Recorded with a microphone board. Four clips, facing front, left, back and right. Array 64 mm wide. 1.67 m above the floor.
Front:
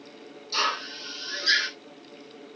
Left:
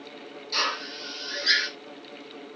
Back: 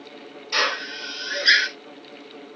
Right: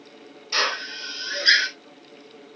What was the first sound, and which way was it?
A drill, 150° right.